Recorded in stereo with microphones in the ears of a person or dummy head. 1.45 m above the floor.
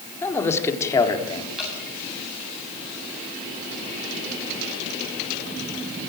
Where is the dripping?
Centre (ahead or behind), 7 m.